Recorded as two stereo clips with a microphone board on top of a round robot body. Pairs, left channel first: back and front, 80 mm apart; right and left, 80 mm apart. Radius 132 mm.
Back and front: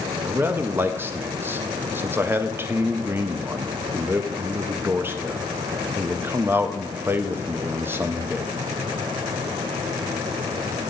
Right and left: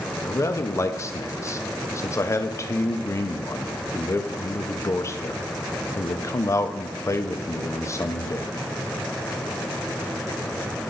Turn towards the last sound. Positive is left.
turn(degrees=-50)